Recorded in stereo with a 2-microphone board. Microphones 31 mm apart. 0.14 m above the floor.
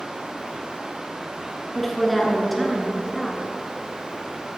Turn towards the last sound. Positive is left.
turn(degrees=5)  # may be behind; listen again after turning